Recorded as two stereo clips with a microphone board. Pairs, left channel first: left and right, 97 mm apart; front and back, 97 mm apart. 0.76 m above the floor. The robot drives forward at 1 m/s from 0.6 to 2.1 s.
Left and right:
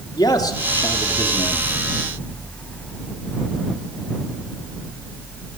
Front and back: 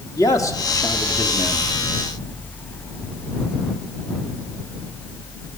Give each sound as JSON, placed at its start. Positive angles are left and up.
{"t": 0.2, "sound": "a man speaking", "azimuth_deg": 50, "distance_m": 1.7}